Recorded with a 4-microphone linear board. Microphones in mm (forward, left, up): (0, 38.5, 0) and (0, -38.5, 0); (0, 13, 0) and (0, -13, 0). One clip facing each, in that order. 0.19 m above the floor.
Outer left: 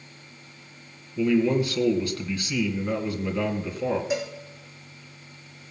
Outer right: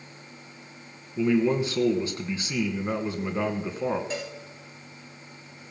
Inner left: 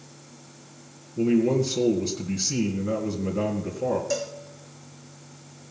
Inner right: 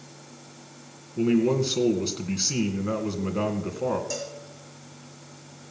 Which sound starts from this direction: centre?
A cowbell, at 4.1 s.